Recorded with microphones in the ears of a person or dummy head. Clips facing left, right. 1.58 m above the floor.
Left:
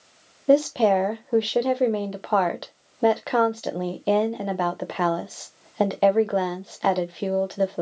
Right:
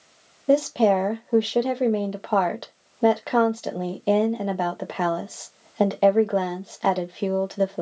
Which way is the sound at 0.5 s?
5° left (ahead or behind).